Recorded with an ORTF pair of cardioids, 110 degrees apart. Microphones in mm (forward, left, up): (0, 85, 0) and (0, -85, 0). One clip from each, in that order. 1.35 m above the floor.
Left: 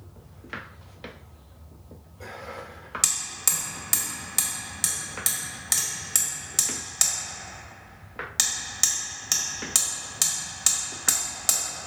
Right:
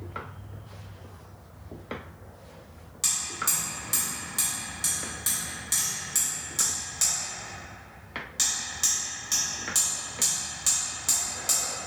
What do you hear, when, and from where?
3.0 s hammering: 45° left, 0.8 m